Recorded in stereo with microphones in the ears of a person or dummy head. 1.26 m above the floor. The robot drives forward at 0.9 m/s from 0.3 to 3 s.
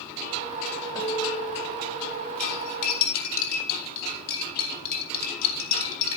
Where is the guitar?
25° left (ahead or behind), 3.5 m; by 2.3 s 20° left (ahead or behind), 4.5 m.